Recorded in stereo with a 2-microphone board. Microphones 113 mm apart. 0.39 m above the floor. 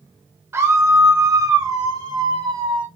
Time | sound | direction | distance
0.5 | a scream | 25° right (ahead or behind) | 1.1 m